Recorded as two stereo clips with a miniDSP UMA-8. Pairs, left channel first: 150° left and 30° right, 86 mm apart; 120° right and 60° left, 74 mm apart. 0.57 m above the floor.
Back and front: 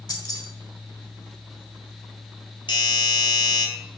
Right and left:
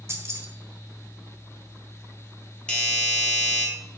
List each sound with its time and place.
0.1 s keys jangling: 110° left, 1.5 m
2.7 s a doorbell: 165° left, 3 m